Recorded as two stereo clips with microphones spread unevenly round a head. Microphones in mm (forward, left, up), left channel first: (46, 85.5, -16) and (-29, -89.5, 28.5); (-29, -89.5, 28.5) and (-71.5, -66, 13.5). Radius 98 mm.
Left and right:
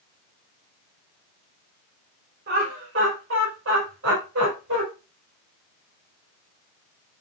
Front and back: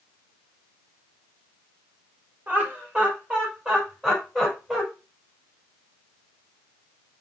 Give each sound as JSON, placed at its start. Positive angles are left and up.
{"t": 2.5, "sound": "laughter", "azimuth_deg": -150, "distance_m": 4.5}